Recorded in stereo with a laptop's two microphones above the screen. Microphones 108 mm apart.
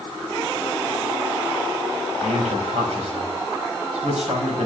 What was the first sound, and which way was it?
A man speaking, 85° right.